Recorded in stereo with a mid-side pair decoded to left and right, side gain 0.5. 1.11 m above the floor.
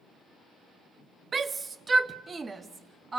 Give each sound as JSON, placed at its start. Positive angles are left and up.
{"t": 1.3, "sound": "a shout", "azimuth_deg": -35, "distance_m": 0.8}